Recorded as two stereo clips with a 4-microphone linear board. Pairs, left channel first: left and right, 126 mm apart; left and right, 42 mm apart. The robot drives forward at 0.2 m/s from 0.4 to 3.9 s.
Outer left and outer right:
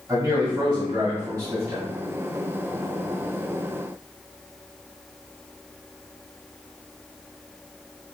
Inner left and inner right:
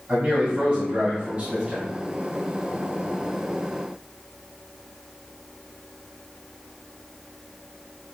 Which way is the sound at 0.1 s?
35° right (ahead or behind).